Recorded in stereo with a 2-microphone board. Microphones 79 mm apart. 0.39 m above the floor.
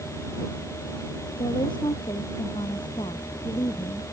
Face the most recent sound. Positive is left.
turn(degrees=85)